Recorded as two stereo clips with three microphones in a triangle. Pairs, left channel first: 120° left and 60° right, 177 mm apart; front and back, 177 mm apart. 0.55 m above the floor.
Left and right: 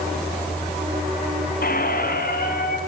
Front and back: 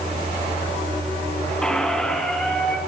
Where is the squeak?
85° left, 3 m.